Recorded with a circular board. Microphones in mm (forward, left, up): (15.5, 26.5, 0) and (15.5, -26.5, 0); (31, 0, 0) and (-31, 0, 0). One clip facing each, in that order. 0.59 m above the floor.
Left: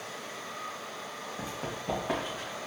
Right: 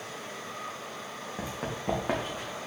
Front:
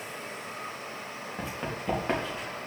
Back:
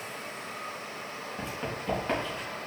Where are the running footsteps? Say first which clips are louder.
Right 3 dB, front 1 dB; 80° right, 4 m; by 2.4 s 70° right, 4 m.